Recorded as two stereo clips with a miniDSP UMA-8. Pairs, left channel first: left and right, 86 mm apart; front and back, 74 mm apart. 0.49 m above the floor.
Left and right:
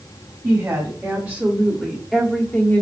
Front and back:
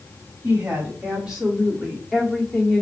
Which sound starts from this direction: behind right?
A woman speaking, at 0.4 s.